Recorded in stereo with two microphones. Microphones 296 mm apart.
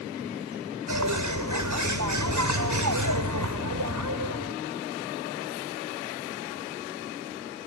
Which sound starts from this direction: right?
A bird, at 0.9 s.